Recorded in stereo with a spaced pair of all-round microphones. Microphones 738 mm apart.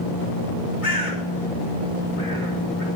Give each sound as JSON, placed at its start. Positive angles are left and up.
{"t": 0.8, "sound": "a bird", "side_deg": 90, "distance_m": 3.0}